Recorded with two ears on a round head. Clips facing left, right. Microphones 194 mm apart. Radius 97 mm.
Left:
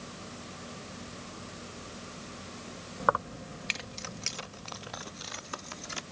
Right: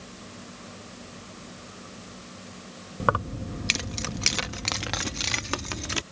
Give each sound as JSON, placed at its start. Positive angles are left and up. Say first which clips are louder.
{"t": 3.0, "sound": "keys jangling", "louder": "right 4 dB", "side_deg": -35}